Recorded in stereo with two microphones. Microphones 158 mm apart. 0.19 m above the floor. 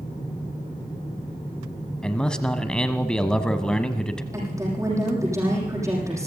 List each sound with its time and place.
2.0 s a man speaking: 5° left (ahead or behind), 1.0 m
4.3 s a woman speaking: 20° right (ahead or behind), 9 m